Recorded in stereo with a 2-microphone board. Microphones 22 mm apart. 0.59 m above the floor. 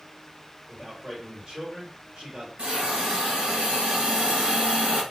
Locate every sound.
0.7 s a man speaking: 45° right (ahead or behind), 2 m
2.6 s a hiss: 80° right, 2.5 m